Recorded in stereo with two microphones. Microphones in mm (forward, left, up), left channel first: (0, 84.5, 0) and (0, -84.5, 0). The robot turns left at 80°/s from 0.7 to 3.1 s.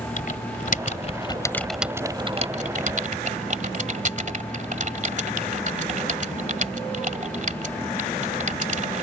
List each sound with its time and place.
0.2 s typing on a keyboard: 50° left (ahead or behind); by 9.0 s 45° right (ahead or behind)